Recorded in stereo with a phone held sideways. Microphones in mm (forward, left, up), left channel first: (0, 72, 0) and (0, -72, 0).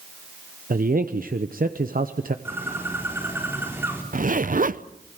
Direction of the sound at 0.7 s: 80° right.